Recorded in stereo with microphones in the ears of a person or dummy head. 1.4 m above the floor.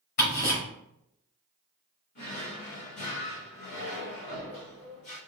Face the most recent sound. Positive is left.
turn(degrees=60)  # may be behind; listen again after turning